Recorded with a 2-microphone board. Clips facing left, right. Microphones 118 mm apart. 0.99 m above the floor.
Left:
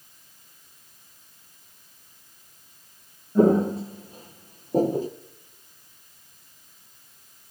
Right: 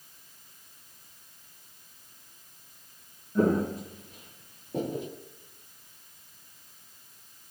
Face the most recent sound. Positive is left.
turn(degrees=35)  # may be behind; listen again after turning